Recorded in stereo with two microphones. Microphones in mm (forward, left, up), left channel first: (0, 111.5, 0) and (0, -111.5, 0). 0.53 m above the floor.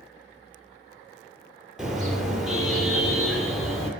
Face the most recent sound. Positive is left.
turn(degrees=0)  # may be behind; listen again after turning